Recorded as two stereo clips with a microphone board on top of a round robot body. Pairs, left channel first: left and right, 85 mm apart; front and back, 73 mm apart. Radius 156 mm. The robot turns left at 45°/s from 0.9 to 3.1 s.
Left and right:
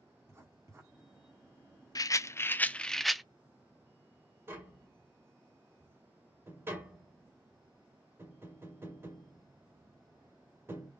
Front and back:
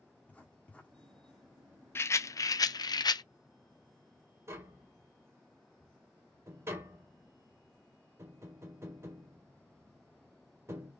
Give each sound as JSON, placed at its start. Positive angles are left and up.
{"t": 0.3, "sound": "writing", "azimuth_deg": -60, "distance_m": 1.6}
{"t": 1.9, "sound": "a rattle", "azimuth_deg": 50, "distance_m": 0.5}
{"t": 4.5, "sound": "tapping", "azimuth_deg": -145, "distance_m": 2.0}